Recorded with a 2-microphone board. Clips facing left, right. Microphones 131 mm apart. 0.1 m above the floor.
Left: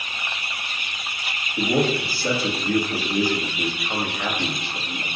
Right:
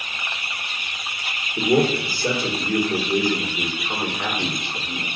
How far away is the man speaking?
About 2.5 m.